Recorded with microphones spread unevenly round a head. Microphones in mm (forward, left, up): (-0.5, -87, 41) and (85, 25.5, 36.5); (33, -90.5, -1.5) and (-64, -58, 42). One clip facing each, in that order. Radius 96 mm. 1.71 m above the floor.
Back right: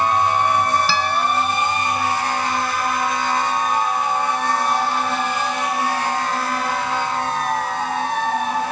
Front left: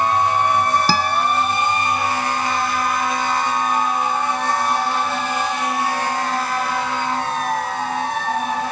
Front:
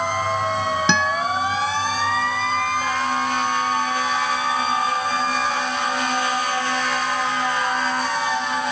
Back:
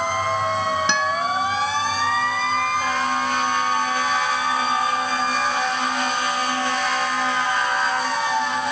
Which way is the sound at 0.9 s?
Straight ahead.